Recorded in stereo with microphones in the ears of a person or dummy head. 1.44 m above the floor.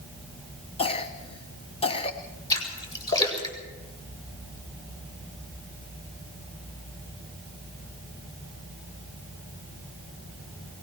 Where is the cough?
30° left (ahead or behind), 1.6 m.